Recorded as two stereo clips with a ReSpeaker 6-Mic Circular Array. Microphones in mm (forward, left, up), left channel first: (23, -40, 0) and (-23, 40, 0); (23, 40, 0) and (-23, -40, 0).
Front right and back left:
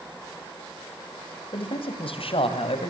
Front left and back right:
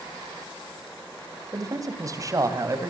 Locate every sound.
1.5 s a man speaking: 70° right, 3 m; by 2.9 s 65° right, 3.5 m